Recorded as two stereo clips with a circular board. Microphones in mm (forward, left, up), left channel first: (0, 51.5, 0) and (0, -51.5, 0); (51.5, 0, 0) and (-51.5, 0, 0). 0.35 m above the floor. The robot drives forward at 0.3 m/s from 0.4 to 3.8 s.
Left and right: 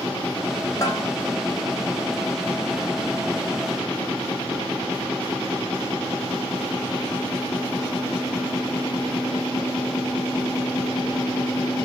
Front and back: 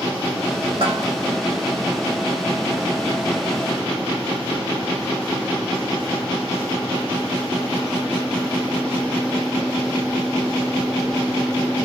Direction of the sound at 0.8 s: 155° left.